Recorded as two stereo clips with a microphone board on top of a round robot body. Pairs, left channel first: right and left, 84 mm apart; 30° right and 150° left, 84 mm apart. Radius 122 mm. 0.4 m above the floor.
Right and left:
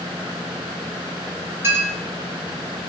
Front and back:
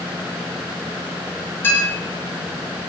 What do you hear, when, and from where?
1.6 s a clink: 30° left, 3 m